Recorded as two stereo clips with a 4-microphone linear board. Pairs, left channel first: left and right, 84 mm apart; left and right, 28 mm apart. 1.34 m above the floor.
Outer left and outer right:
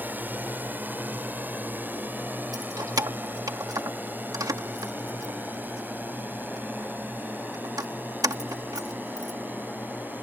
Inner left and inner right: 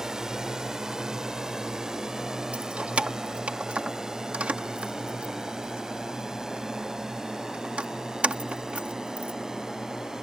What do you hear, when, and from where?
0.0 s a drone: 20° right (ahead or behind); by 10.2 s 25° right (ahead or behind)
2.5 s keys jangling: 50° right (ahead or behind)